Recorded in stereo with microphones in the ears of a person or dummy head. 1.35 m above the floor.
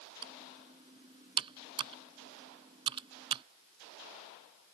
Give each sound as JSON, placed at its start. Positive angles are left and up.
{"t": 0.2, "sound": "typing on a keyboard", "side_deg": -35}